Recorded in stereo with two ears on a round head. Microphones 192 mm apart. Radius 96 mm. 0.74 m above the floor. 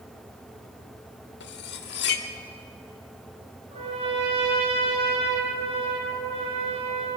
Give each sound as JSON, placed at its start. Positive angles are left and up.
{"t": 1.4, "sound": "cutlery clinking", "side_deg": 50, "distance_m": 1.2}
{"t": 3.7, "sound": "a trumpet", "side_deg": -30, "distance_m": 6.0}